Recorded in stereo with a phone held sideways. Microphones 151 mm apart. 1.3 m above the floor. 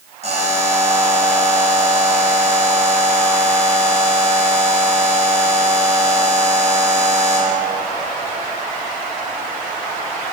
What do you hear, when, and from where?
0.2 s a buzzer: 50° right (ahead or behind), 1.8 m